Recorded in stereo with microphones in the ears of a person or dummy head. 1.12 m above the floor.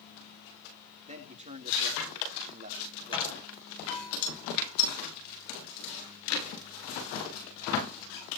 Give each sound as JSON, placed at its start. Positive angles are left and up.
{"t": 1.1, "sound": "a man speaking", "side_deg": -30, "distance_m": 3.5}
{"t": 3.1, "sound": "a gunshot", "side_deg": 25, "distance_m": 7.0}